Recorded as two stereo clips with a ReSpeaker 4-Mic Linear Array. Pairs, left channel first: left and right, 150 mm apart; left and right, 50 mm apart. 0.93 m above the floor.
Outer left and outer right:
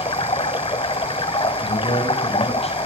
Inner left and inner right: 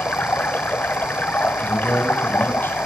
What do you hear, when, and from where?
0.0 s running water: 35° left (ahead or behind), 0.9 m
1.6 s a man speaking: 45° left (ahead or behind), 7.5 m